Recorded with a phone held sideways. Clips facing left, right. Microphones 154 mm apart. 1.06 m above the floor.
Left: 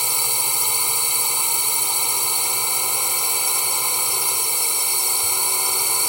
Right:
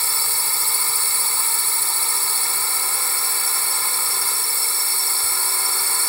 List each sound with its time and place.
0.0 s a drone: 15° left (ahead or behind)